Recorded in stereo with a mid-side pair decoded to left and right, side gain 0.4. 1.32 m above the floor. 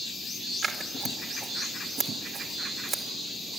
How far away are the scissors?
About 2 m.